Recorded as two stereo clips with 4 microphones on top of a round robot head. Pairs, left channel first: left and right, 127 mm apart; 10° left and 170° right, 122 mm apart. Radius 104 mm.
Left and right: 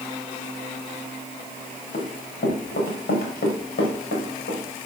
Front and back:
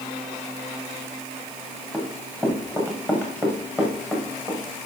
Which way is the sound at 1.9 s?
85° left.